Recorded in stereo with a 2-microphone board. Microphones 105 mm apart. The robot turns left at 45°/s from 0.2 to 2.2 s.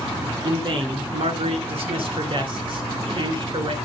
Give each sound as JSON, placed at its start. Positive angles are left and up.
{"t": 0.4, "sound": "a man speaking", "azimuth_deg": -45, "distance_m": 2.5}